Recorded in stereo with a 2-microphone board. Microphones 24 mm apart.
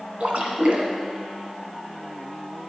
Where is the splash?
60° right (ahead or behind), 2.0 m.